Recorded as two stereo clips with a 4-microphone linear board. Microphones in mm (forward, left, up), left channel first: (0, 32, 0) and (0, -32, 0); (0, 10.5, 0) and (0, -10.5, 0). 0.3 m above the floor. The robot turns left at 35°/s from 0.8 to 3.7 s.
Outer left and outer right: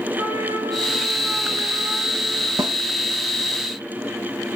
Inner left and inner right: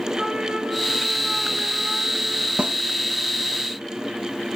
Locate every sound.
0.2 s a trumpet: 115° right, 3.5 m; by 2.5 s 175° right, 3.5 m
2.6 s a snare drum: 75° right (ahead or behind), 0.6 m